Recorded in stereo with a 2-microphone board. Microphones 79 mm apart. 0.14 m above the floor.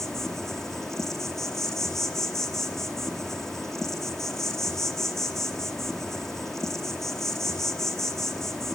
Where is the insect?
5° left (ahead or behind), 0.8 m.